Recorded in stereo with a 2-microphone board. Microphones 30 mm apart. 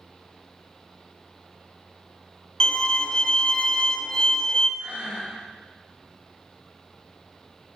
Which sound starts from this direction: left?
A violin, at 2.6 s.